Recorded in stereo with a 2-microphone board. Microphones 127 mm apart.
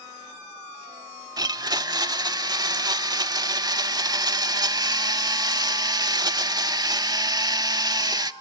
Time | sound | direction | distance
1.4 | a blender | 30° right (ahead or behind) | 0.6 m